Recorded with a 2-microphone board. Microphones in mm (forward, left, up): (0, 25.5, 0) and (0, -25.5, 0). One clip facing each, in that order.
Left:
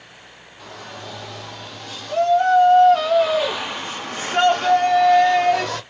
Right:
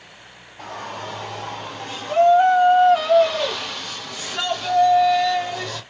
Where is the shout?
50° right (ahead or behind), 1.6 m; by 5.8 s 70° left (ahead or behind), 1.4 m.